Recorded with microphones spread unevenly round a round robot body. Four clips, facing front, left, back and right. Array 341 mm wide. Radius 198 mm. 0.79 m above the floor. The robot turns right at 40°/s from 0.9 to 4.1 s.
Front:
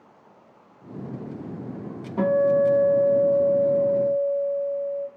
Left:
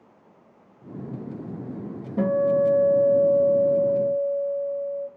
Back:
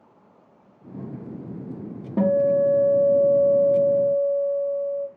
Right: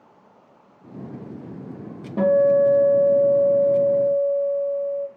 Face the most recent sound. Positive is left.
turn(degrees=-95)